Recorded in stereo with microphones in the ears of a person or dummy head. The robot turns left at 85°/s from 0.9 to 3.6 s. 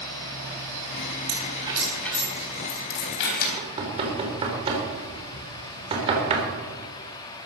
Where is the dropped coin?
60° right (ahead or behind), 3.5 m; by 3.5 s 55° left (ahead or behind), 3.5 m.